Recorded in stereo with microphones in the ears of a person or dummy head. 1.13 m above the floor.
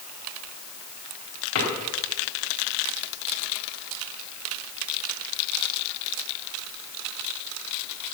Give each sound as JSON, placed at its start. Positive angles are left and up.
{"t": 1.6, "sound": "a drawer", "side_deg": 80, "distance_m": 4.5}